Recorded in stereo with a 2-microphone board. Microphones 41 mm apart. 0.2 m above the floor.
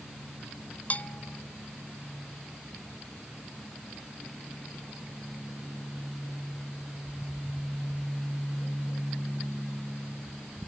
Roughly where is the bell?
Left.